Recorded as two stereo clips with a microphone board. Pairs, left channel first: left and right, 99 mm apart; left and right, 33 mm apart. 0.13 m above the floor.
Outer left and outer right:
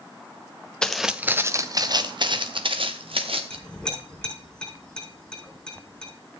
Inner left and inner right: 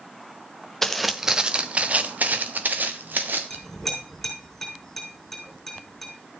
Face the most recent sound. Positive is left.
turn(degrees=10)  # may be behind; listen again after turning